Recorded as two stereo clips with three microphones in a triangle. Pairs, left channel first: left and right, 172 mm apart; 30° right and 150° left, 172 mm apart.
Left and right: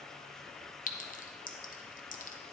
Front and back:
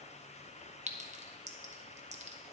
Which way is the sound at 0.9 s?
115° left.